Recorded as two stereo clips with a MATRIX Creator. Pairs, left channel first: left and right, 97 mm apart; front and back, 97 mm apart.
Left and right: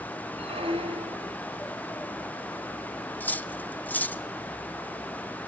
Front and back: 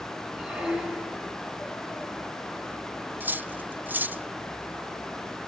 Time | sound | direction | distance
0.4 | a squeak | 100° right | 2 m
3.2 | cutlery clinking | 135° left | 0.8 m